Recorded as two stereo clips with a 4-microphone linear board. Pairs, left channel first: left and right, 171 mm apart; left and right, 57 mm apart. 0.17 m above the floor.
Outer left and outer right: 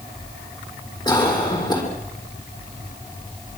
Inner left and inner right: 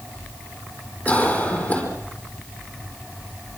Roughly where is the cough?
Left.